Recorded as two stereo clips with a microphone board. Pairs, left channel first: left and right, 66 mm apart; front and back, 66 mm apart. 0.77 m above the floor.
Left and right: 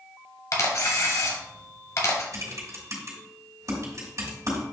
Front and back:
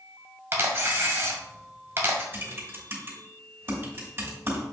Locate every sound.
0.5 s a camera shutter: 130° left, 1.6 m
2.3 s typing on a keyboard: 125° right, 2.5 m